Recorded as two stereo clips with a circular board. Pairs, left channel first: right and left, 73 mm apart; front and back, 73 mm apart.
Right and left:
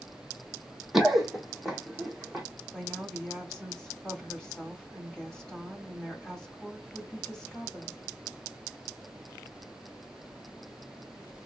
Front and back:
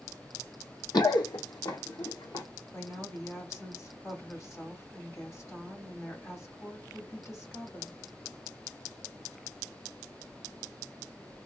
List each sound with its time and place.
0.9 s running footsteps: 5° left, 0.7 m; by 2.5 s straight ahead, 2.0 m
2.7 s a woman speaking: 20° right, 1.9 m